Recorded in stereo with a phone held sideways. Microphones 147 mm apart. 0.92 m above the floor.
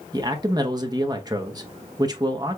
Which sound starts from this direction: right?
A man speaking, at 0.1 s.